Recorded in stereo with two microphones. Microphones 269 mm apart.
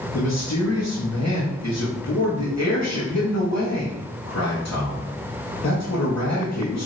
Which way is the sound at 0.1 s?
80° left.